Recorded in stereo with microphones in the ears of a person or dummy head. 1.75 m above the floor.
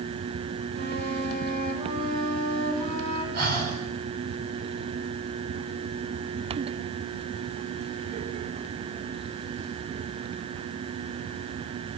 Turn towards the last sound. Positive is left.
turn(degrees=-50)  # may be behind; listen again after turning